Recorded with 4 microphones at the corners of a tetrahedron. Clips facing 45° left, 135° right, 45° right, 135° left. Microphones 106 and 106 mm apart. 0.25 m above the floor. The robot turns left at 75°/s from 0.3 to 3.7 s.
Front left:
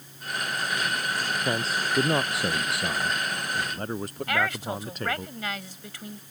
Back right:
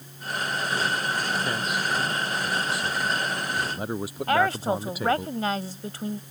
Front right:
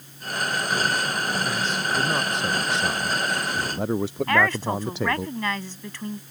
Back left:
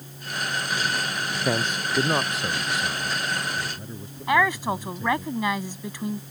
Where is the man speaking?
115° left; by 5.3 s 50° right.